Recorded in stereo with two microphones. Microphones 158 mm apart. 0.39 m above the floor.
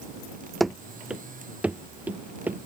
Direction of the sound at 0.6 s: Centre (ahead or behind).